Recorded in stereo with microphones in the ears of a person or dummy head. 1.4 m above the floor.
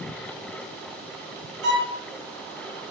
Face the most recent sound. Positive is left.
turn(degrees=-55)  # may be behind; listen again after turning